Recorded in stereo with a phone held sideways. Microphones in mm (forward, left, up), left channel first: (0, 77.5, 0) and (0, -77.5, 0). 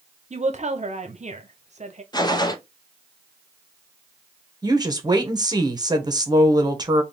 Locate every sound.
0.3 s a woman speaking: 50° right (ahead or behind), 0.8 m
2.1 s a gunshot: 30° left (ahead or behind), 0.6 m
4.6 s a woman speaking: 25° right (ahead or behind), 0.9 m